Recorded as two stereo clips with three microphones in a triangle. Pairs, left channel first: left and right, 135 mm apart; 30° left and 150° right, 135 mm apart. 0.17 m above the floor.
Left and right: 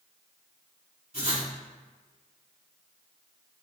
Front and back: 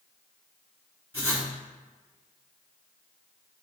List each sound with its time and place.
1.1 s writing: 75° right, 1.7 m